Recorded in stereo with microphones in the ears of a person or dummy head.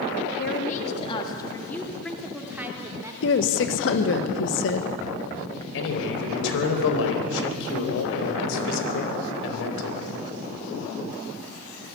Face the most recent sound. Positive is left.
turn(degrees=75)  # may be behind; listen again after turning